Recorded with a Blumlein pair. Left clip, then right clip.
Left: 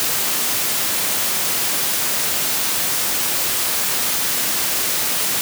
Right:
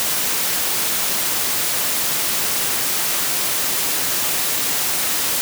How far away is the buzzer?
I don't hear a buzzer.